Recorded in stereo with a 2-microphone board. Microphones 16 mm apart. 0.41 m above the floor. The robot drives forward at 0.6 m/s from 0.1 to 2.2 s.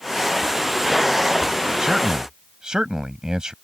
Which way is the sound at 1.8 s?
55° right (ahead or behind).